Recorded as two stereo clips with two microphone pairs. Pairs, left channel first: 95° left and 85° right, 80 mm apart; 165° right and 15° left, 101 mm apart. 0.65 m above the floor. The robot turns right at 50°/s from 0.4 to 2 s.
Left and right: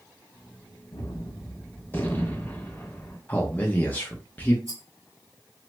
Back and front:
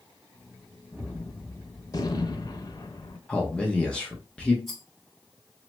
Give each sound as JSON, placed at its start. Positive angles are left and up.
{"t": 0.9, "sound": "a gunshot", "azimuth_deg": 100, "distance_m": 0.5}
{"t": 3.3, "sound": "a man speaking", "azimuth_deg": 135, "distance_m": 0.5}
{"t": 4.7, "sound": "a rattle", "azimuth_deg": -75, "distance_m": 1.3}